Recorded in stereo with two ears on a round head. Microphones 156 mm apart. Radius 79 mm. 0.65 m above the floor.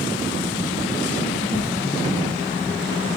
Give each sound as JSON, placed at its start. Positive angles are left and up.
{"t": 1.4, "sound": "a whoosh", "side_deg": 5, "distance_m": 6.0}